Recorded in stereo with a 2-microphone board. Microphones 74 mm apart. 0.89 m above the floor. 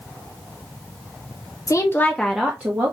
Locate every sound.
1.7 s a woman speaking: 45° left (ahead or behind), 0.6 m; by 2.9 s 30° right (ahead or behind), 0.8 m